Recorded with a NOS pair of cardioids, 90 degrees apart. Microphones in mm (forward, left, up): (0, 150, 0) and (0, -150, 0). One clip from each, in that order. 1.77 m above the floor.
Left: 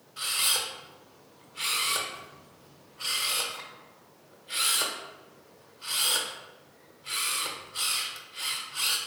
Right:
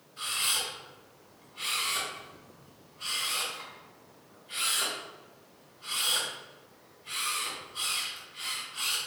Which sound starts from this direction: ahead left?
A camera shutter, at 0.2 s.